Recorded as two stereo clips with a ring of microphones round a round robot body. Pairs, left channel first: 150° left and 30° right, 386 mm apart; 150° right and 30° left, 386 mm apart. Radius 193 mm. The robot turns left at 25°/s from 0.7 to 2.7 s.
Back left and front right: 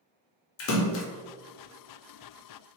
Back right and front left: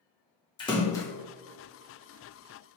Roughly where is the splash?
Behind left.